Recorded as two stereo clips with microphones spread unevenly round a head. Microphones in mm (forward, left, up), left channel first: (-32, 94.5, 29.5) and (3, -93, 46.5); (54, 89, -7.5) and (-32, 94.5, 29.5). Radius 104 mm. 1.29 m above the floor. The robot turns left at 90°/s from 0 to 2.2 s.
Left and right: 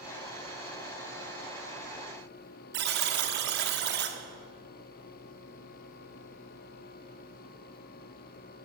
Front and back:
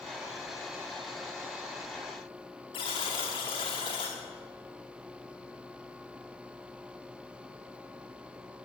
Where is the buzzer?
65° right, 1.1 m.